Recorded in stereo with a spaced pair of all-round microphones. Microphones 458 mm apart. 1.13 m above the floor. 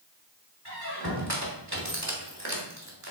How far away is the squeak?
About 1.6 m.